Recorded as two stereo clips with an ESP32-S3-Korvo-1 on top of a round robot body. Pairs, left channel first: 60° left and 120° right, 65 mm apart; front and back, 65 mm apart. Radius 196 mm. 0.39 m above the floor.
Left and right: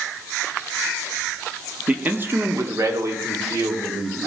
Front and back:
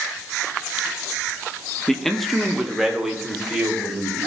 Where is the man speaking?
75° right, 1.5 m; by 4.3 s 95° right, 4 m.